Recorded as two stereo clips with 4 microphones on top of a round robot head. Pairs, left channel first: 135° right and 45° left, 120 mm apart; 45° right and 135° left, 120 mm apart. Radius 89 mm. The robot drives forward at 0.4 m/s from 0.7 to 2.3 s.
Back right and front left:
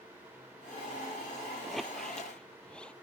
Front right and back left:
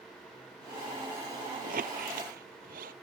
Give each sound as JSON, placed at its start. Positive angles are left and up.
{"t": 1.6, "sound": "a squeak", "azimuth_deg": 135}